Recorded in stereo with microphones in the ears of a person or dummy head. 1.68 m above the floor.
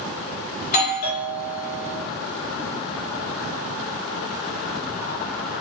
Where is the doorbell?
55° left (ahead or behind), 1.3 m.